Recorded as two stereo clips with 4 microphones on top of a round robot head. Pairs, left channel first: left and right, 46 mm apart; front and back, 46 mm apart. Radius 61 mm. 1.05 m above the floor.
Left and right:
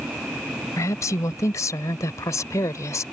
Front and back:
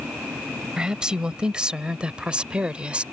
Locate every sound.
0.8 s a woman speaking: 105° left; by 3.0 s 115° left